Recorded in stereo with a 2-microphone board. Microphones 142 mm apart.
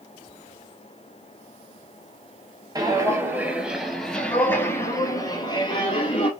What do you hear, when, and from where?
2.8 s footsteps: 25° right (ahead or behind), 1.7 m; by 6.3 s 45° left (ahead or behind), 2.5 m